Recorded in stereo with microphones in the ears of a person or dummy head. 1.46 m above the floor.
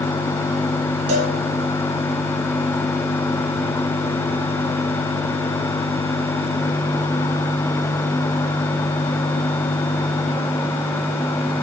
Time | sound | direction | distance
1.1 | a cowbell | 35° right (ahead or behind) | 1.9 m